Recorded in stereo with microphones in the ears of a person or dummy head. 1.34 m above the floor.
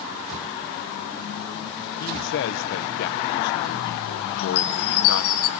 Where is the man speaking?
60° left (ahead or behind), 0.9 m.